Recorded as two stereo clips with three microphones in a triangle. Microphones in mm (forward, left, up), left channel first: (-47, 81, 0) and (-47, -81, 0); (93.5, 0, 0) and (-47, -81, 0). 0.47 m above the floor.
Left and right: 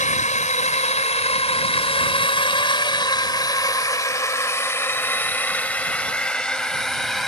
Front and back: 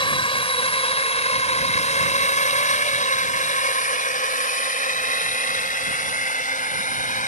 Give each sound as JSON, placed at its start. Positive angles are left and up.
{"t": 0.0, "sound": "a drone", "azimuth_deg": 75}